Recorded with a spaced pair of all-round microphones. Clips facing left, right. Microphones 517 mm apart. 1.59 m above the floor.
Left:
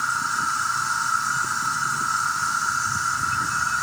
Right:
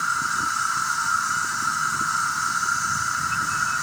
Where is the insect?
70° left (ahead or behind), 3.5 m.